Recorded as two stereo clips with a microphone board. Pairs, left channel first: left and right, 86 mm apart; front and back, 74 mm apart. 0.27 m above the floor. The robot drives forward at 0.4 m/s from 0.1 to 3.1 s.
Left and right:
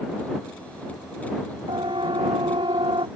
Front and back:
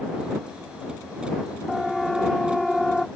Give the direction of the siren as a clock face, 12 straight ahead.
3 o'clock.